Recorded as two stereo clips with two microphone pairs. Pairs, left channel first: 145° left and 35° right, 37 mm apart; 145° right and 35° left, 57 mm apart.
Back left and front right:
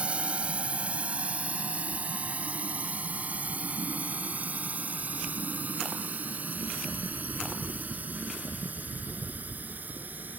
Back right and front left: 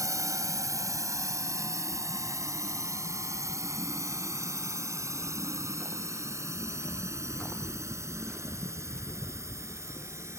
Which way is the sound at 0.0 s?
20° left.